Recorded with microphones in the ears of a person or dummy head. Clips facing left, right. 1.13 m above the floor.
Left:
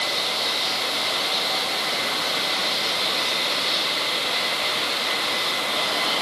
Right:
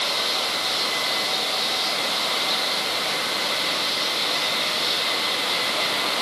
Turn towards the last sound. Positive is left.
No sound to turn to.